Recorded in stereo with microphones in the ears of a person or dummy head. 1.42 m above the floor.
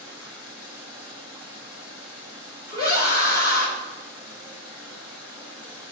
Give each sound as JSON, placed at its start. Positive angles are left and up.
{"t": 0.0, "sound": "running water", "side_deg": 75, "distance_m": 3.5}
{"t": 2.7, "sound": "a scream", "side_deg": 50, "distance_m": 3.0}